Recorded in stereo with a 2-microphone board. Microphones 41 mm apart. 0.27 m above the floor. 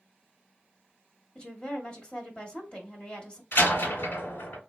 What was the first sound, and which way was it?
A woman speaking, 25° left (ahead or behind).